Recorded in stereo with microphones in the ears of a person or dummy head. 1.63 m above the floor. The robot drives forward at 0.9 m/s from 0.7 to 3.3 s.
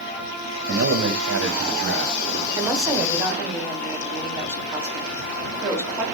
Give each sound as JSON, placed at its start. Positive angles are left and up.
{"t": 0.7, "sound": "a man speaking", "side_deg": -70, "distance_m": 0.7}
{"t": 2.6, "sound": "a woman speaking", "side_deg": -20, "distance_m": 0.6}